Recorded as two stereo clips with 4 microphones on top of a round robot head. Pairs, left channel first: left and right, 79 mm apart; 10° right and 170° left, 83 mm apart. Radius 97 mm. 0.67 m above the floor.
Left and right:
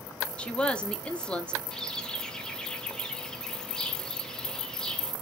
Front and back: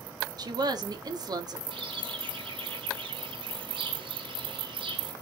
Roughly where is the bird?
Behind.